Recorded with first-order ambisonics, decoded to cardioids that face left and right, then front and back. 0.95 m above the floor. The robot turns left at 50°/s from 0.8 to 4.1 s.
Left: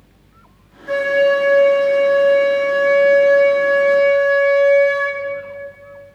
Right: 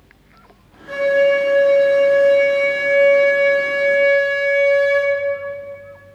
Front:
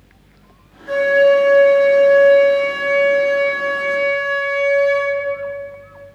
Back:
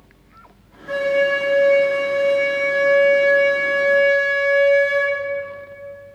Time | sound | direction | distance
0.9 | a flute | 65° left | 1.3 m